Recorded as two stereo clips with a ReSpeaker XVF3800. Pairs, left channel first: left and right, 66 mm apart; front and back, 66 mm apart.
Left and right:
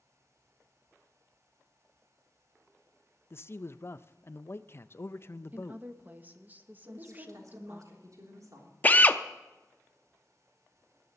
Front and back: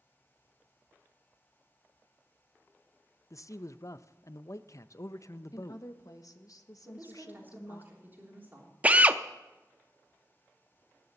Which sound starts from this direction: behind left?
A drill, at 8.8 s.